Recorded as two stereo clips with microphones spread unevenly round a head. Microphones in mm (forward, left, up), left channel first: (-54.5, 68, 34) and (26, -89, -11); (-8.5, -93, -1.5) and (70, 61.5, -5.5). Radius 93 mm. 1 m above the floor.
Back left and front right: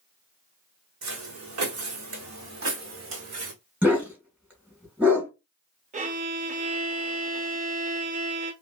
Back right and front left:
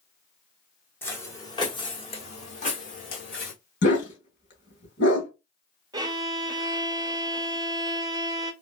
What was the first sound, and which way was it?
Footsteps, 40° right.